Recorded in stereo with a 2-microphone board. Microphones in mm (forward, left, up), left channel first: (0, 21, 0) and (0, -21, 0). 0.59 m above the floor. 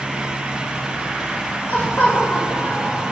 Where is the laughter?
40° left (ahead or behind), 2.5 m; by 3.1 s 55° left (ahead or behind), 2.0 m.